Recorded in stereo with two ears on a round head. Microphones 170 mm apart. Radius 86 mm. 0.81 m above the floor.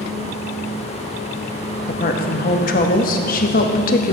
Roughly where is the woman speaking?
Left.